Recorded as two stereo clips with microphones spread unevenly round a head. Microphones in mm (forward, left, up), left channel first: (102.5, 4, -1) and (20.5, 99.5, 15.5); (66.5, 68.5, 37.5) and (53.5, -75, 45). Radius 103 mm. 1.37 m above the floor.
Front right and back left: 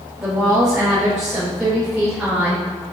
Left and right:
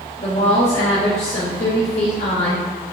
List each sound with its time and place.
0.2 s a woman speaking: 50° left, 2.5 m